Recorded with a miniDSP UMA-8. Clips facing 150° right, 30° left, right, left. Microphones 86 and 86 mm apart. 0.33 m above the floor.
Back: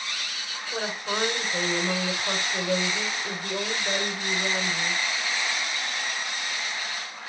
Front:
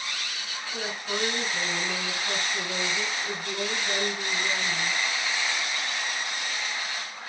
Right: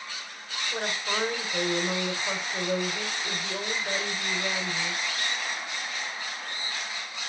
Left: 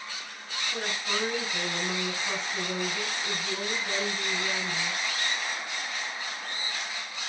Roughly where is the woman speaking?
Behind right.